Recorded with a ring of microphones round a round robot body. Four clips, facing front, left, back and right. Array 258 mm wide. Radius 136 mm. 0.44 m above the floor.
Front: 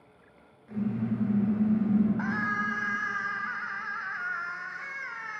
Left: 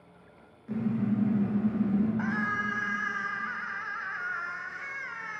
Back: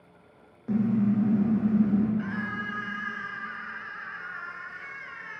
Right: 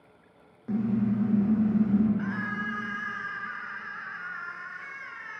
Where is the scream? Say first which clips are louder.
Left 2 dB, front 2 dB; 35° left, 2.5 m.